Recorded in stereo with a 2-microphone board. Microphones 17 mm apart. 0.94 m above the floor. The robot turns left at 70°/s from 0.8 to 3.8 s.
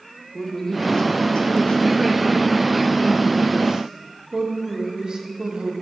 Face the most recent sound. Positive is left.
turn(degrees=-55)